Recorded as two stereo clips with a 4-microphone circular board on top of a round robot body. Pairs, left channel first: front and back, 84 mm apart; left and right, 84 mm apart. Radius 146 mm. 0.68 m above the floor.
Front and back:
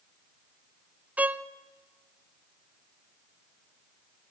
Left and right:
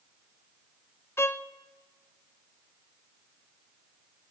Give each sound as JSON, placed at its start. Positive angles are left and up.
{"t": 1.2, "sound": "a violin", "azimuth_deg": 120, "distance_m": 0.7}